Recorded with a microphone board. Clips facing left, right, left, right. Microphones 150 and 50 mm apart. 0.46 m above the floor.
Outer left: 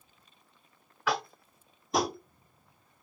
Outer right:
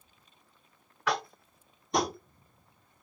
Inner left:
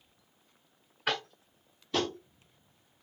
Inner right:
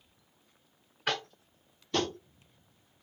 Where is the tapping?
Centre (ahead or behind), 0.5 m.